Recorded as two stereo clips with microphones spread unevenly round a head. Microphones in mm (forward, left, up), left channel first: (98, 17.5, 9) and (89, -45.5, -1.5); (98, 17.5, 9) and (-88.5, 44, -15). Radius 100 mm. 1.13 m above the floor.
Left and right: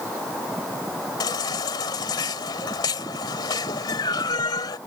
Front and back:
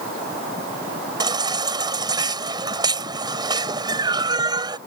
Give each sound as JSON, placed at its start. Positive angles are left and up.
{"t": 1.2, "sound": "a baby crying", "azimuth_deg": 100}